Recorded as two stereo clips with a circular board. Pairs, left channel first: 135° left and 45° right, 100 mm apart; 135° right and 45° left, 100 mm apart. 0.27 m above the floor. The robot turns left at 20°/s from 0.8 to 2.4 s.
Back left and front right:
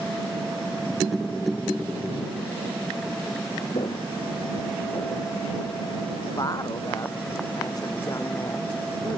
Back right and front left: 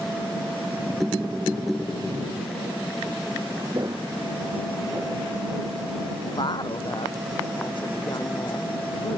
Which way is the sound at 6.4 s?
175° right.